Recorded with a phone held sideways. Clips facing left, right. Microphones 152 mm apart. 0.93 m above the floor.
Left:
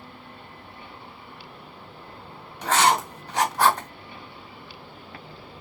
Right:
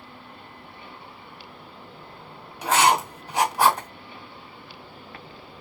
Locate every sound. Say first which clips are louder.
2.6 s writing: right 1 dB; 10° right (ahead or behind), 1.0 m